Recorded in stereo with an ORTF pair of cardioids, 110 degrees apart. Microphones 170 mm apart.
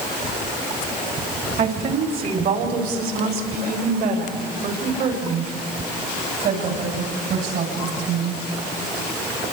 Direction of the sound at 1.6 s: 50° right.